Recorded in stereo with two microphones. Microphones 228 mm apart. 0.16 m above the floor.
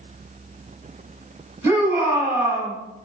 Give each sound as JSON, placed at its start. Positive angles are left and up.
{"t": 1.6, "sound": "a shout", "side_deg": -10, "distance_m": 1.6}